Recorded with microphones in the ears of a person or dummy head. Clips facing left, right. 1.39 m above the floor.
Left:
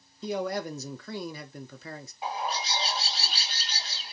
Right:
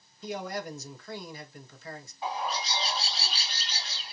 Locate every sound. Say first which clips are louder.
0.2 s a man speaking: left 5 dB; 55° left (ahead or behind), 0.5 m
2.2 s a bird: even; 20° left (ahead or behind), 1.7 m